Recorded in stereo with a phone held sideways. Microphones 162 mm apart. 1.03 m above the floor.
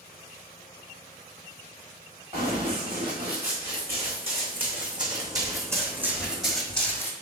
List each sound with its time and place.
2.3 s running footsteps: 45° right (ahead or behind), 4 m; by 7.1 s 15° left (ahead or behind), 1.7 m